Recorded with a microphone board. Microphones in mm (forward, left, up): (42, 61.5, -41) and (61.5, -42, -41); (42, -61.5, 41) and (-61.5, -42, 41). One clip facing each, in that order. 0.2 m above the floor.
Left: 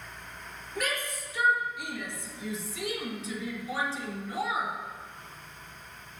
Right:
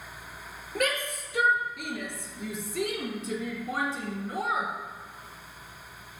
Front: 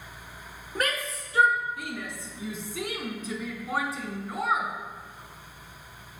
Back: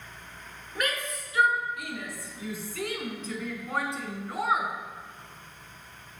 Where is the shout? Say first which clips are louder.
Right 4 dB, front 2 dB; 60° right, 3.5 m; by 4.7 s 110° right, 3 m.